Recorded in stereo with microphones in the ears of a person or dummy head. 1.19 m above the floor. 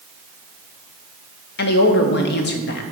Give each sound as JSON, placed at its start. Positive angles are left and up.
{"t": 1.6, "sound": "a woman speaking", "side_deg": 50, "distance_m": 0.8}